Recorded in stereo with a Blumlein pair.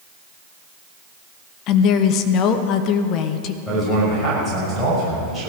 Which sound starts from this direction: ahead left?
A woman speaking, at 1.7 s.